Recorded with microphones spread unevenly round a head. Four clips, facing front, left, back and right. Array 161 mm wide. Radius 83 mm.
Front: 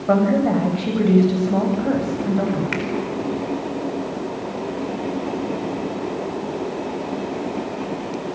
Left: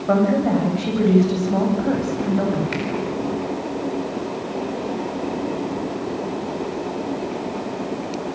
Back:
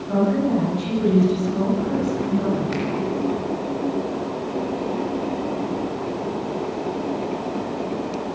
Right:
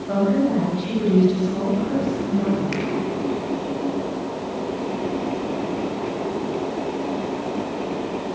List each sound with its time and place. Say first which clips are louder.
0.1 s a woman speaking: left 2 dB, front 3 dB; 30° left, 9 m; by 2.6 s 40° left, 10.5 m
2.7 s a finger snap: even, even; 5° left, 4.5 m